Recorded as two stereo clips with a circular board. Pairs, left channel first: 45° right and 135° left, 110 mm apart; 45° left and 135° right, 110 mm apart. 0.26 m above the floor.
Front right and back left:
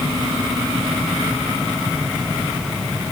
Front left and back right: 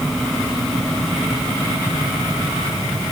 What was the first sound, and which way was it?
Only background noise.